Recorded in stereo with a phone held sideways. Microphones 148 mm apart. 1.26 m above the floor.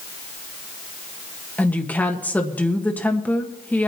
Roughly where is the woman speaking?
Centre.